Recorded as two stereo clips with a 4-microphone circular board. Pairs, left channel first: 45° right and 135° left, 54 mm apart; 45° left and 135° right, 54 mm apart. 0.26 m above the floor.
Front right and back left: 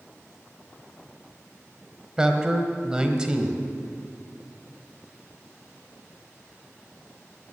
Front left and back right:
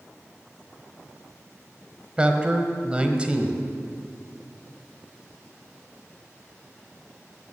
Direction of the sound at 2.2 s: 170° right.